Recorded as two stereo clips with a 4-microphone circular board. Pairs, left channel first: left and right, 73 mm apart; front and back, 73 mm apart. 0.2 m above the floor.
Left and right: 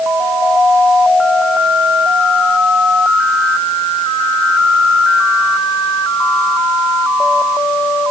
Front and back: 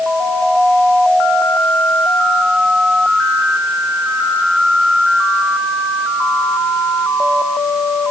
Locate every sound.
Only background noise.